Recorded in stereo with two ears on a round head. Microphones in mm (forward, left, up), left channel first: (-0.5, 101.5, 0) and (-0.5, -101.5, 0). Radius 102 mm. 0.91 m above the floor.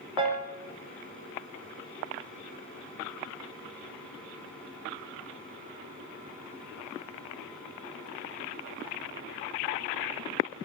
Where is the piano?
25° right (ahead or behind), 4.5 m.